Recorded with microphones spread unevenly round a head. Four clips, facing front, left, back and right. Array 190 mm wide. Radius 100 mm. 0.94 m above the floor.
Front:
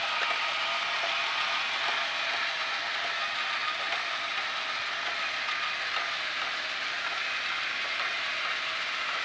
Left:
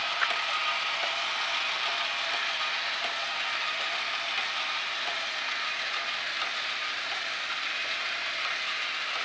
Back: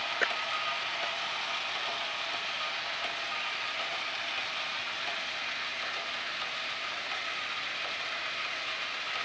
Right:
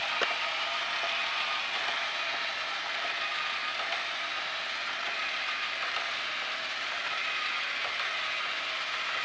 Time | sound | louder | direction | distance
0.2 | a clap | left 2 dB, back 3 dB | 130° right | ?